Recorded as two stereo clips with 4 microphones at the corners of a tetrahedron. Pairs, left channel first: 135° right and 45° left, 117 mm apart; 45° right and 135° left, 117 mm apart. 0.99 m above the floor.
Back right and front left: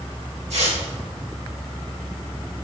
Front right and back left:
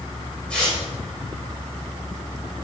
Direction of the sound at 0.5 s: 35° left.